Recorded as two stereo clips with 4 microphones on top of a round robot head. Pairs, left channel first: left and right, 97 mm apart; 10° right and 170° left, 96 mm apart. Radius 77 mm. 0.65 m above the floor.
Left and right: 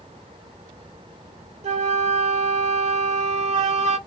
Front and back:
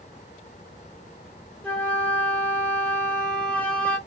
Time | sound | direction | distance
1.6 | a flute | 90° right | 1.1 m